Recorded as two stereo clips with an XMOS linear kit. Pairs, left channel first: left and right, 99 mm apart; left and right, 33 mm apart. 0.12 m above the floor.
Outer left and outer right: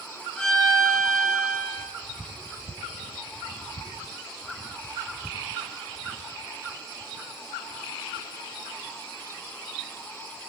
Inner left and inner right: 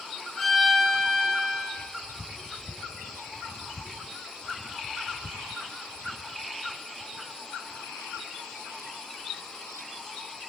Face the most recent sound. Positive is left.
turn(degrees=5)  # may be behind; listen again after turning